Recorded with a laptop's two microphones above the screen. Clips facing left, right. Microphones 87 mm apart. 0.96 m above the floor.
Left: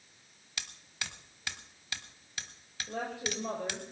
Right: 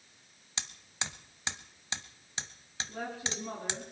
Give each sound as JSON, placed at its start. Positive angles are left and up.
{"t": 0.6, "sound": "hammering", "side_deg": -25, "distance_m": 1.5}
{"t": 2.9, "sound": "a woman speaking", "side_deg": 75, "distance_m": 4.5}